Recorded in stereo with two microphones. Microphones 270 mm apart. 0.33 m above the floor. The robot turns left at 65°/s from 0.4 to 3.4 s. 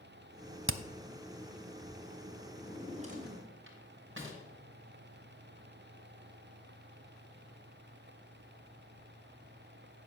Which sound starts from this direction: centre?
A drawer, at 2.6 s.